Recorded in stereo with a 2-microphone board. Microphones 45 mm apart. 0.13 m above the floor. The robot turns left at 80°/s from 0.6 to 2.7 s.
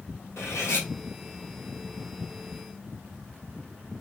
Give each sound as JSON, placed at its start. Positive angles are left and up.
{"t": 0.4, "sound": "cutlery clinking", "side_deg": 65, "distance_m": 2.0}